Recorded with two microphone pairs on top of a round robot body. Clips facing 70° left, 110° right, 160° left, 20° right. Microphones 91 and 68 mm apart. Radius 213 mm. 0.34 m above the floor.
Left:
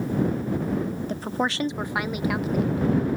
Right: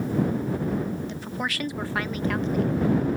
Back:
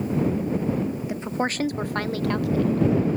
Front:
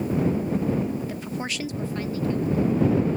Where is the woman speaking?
90° left; by 2.9 s 160° left.